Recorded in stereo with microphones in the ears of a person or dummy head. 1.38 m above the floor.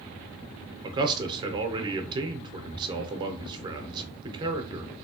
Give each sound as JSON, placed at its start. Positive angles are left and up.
{"t": 0.8, "sound": "a man speaking", "side_deg": -25, "distance_m": 0.8}